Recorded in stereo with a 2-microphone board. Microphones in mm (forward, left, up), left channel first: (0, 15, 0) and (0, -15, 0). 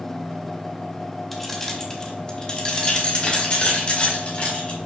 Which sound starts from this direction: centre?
Keys jangling, at 1.3 s.